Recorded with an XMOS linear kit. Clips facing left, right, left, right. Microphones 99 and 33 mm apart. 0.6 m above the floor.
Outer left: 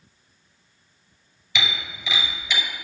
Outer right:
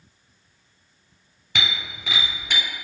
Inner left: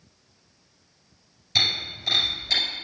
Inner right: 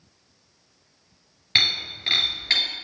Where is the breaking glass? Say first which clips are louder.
Even, inner right 2 dB; 50° right (ahead or behind), 4.5 m.